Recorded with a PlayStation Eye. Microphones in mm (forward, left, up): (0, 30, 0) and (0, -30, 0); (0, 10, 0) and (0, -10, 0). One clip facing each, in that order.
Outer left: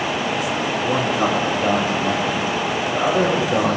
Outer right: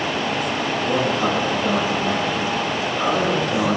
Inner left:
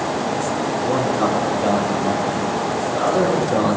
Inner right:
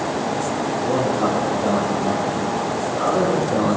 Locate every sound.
0.8 s a man speaking: 15° left (ahead or behind), 9.5 m; by 3.8 s 30° left (ahead or behind), 9 m